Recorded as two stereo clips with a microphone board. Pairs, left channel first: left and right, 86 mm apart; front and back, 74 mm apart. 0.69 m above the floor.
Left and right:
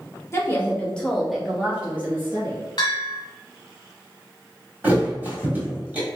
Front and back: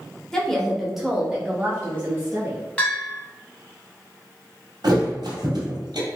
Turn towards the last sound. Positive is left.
turn(degrees=-160)